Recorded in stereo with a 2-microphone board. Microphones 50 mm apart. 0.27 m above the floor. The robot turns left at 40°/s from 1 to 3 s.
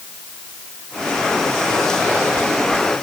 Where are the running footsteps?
No running footsteps in this recording.